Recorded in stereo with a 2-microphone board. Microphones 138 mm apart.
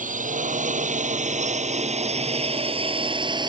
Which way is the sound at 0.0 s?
70° right (ahead or behind).